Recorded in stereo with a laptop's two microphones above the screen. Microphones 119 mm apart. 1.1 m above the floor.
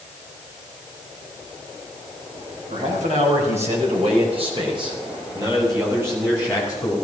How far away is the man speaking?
About 4.5 m.